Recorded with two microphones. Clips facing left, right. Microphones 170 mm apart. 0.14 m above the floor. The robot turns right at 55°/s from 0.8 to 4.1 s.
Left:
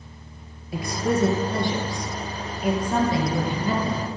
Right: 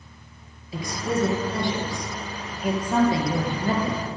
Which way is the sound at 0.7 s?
75° left.